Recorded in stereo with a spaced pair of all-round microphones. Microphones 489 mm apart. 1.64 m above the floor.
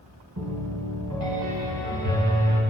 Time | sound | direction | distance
0.4 | a piano | 40° right (ahead or behind) | 2 m